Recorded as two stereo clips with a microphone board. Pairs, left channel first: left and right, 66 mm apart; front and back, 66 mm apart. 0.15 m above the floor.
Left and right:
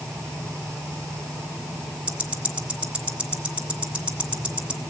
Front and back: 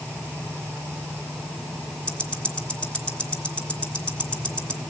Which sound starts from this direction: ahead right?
Ticking, at 2.1 s.